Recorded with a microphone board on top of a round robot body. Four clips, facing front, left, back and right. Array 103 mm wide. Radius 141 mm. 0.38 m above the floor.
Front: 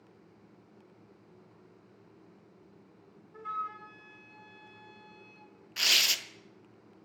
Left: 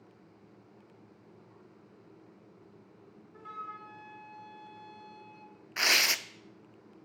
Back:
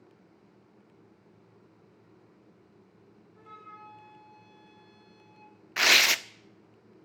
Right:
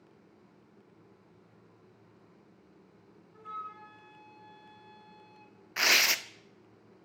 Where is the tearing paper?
175° right, 0.7 m.